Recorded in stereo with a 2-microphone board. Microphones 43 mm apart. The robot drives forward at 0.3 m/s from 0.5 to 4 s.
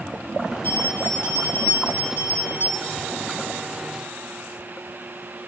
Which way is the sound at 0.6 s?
70° left (ahead or behind).